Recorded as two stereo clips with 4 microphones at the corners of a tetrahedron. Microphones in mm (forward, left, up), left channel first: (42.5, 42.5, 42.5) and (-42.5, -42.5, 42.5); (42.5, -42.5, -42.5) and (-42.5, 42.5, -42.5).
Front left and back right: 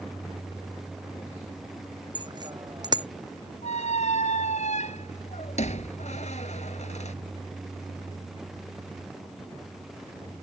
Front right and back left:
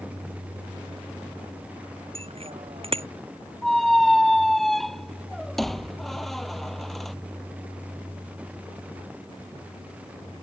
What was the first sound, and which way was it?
A bicycle bell, 170° left.